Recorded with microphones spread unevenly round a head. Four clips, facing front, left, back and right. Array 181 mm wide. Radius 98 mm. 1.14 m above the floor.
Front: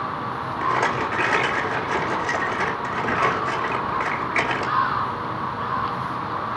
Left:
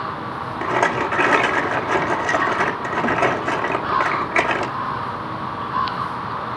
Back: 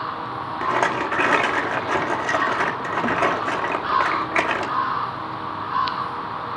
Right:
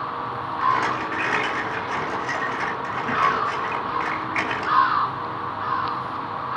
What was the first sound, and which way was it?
A rattle, 125° left.